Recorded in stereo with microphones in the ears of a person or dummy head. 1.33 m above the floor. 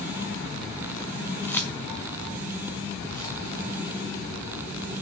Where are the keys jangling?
Centre (ahead or behind), 0.8 m; by 3.4 s 5° left (ahead or behind), 2 m.